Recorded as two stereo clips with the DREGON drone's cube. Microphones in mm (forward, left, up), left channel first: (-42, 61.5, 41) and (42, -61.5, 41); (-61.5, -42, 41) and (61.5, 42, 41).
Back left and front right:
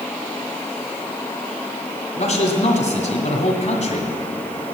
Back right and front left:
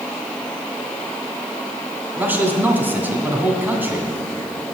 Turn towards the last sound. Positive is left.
turn(degrees=110)